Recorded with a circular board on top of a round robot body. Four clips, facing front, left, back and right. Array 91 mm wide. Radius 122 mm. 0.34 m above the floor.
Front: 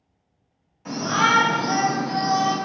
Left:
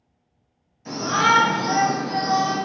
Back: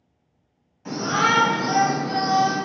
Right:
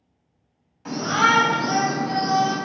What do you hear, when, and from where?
0.8 s a shout: 85° right, 1.8 m; by 2.6 s straight behind, 1.6 m